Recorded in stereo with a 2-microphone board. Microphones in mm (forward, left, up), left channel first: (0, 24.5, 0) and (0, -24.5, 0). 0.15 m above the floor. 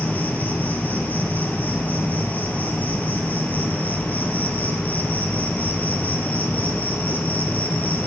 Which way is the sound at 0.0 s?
30° left (ahead or behind).